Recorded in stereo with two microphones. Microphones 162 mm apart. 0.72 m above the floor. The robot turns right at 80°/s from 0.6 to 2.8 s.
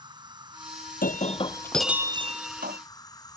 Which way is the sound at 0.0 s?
150° right.